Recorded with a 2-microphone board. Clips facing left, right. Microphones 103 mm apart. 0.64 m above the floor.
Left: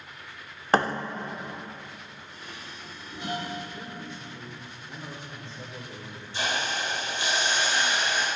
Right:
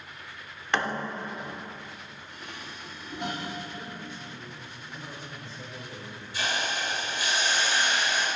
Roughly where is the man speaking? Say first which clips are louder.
Even; left.